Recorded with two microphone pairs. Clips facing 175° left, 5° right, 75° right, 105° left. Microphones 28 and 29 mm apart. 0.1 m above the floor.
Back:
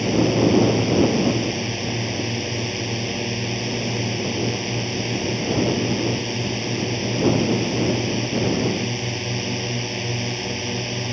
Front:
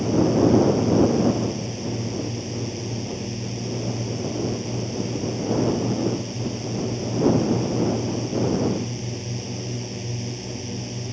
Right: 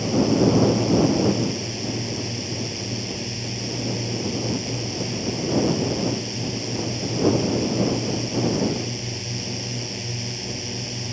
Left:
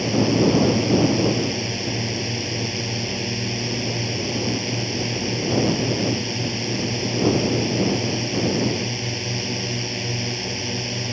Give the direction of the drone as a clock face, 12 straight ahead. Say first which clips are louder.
Even, even; 7 o'clock.